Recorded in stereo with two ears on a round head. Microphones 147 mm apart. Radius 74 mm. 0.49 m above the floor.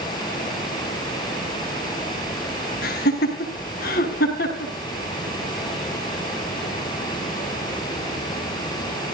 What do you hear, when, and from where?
2.8 s laughter: 65° left (ahead or behind), 5 m